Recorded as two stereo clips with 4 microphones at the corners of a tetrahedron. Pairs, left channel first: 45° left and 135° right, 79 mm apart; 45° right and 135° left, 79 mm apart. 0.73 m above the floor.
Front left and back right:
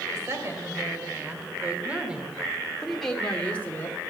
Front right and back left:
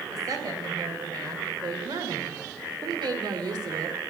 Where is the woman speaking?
175° left, 3 m; by 4.0 s 105° left, 1.8 m.